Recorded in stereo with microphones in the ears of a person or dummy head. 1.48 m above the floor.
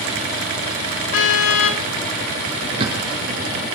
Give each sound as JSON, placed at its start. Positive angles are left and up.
{"t": 1.1, "sound": "a car horn", "side_deg": 80, "distance_m": 3.5}
{"t": 2.6, "sound": "a bird", "side_deg": -30, "distance_m": 4.5}